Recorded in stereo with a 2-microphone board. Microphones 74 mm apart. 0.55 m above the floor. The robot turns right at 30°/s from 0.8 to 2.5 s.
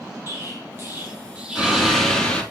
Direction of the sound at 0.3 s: 35° right (ahead or behind).